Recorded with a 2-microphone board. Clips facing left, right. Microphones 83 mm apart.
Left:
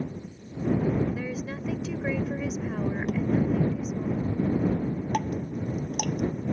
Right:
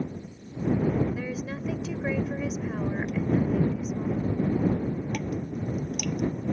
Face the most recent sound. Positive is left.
turn(degrees=50)  # may be behind; listen again after turning